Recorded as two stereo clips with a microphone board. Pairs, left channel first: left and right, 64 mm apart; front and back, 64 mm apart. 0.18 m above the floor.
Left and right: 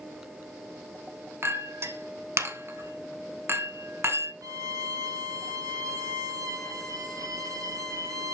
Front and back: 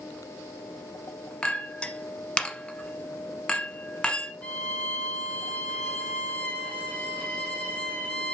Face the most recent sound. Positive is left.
turn(degrees=-70)